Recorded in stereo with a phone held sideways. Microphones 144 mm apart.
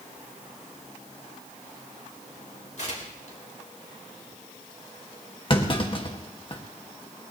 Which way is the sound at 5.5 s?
35° left (ahead or behind).